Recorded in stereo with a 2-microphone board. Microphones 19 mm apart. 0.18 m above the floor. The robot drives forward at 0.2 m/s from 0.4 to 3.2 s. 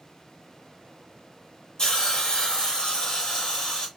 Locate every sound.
1.8 s a hiss: 35° left (ahead or behind), 2.5 m